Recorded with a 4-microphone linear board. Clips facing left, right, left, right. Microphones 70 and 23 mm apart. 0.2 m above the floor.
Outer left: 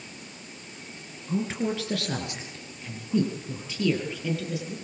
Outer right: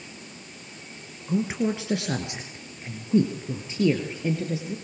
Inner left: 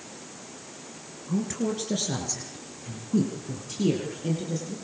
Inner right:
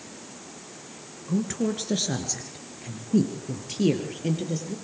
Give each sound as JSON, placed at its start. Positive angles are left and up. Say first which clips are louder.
{"t": 1.3, "sound": "a woman speaking", "louder": "outer right 3 dB, inner right 2 dB", "side_deg": -15, "distance_m": 2.5}